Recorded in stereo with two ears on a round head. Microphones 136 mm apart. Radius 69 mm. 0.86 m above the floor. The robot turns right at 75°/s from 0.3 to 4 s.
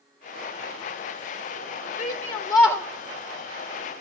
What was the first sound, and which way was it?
A shout, 110° left.